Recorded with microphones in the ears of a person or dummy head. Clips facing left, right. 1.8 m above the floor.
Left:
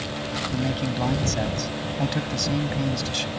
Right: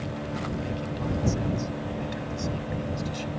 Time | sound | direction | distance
0.5 | a man speaking | 85° left | ?